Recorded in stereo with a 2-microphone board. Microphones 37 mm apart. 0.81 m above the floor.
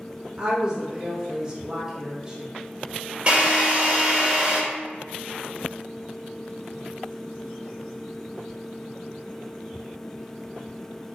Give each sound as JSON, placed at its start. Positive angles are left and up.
{"t": 0.4, "sound": "a woman speaking", "side_deg": -25, "distance_m": 1.0}
{"t": 3.3, "sound": "a drill", "side_deg": -30, "distance_m": 1.4}